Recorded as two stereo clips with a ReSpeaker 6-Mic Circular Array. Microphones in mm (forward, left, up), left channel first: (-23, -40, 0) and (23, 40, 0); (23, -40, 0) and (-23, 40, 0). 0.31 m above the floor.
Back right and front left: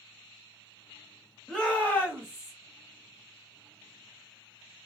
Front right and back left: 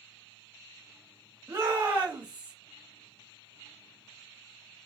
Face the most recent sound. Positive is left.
turn(degrees=-160)